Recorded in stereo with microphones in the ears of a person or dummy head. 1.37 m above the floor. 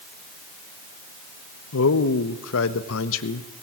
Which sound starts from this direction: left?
A man speaking, at 1.7 s.